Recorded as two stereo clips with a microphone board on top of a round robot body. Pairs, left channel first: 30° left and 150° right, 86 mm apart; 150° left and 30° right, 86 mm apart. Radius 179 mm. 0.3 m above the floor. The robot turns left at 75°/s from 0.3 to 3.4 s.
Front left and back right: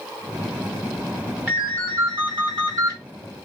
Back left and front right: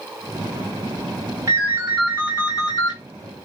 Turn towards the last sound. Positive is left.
turn(degrees=130)